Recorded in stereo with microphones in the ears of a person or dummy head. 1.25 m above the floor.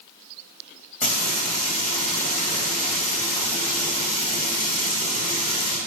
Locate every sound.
1.0 s frying: 50° left (ahead or behind), 2.5 m